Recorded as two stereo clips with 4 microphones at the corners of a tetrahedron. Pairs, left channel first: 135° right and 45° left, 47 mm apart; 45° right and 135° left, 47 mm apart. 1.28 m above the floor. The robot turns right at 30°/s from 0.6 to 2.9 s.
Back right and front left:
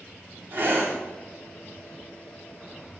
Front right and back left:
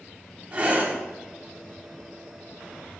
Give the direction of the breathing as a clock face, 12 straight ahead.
9 o'clock.